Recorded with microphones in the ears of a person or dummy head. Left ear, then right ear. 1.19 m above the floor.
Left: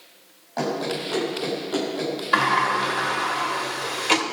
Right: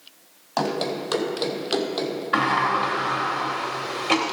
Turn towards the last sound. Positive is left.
turn(degrees=20)  # may be behind; listen again after turning